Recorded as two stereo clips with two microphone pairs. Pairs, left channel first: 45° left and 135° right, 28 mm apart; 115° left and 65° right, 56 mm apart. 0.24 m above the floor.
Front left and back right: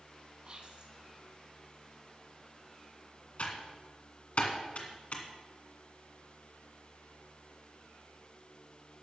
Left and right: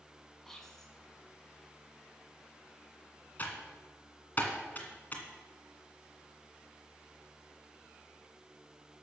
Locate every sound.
0.5 s whispering: 165° right, 2.5 m
3.4 s typing on a keyboard: 65° left, 1.9 m